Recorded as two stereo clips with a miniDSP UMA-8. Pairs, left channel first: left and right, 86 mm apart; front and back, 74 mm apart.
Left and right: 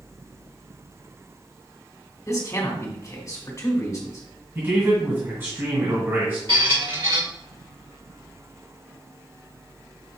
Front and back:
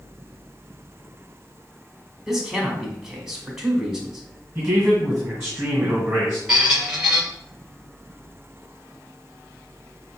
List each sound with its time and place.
2.3 s a man speaking: 100° left, 1.3 m
4.5 s a man speaking: 115° right, 1.9 m
6.5 s a squeak: 100° right, 1.3 m